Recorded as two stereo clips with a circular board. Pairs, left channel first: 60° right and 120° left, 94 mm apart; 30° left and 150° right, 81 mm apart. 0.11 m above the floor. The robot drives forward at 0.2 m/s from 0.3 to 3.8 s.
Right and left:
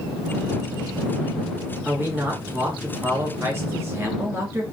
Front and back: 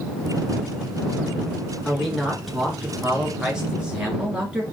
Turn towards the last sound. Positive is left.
turn(degrees=145)